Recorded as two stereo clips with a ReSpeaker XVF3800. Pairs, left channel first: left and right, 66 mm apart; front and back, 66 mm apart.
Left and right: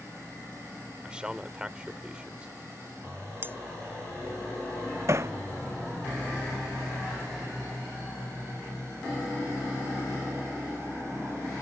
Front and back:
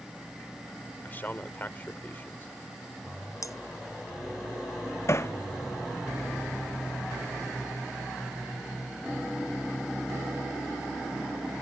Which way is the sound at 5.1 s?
45° right.